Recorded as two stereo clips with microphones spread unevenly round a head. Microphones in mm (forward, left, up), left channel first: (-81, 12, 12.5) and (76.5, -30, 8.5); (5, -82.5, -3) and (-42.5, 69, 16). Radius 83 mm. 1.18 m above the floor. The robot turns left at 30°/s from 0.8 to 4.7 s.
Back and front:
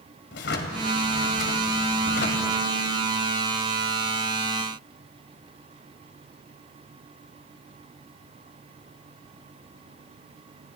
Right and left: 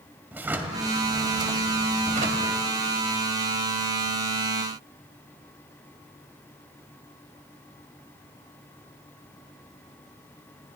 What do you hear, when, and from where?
0.3 s a drawer: 175° right, 2.5 m; by 2.5 s 130° left, 2.5 m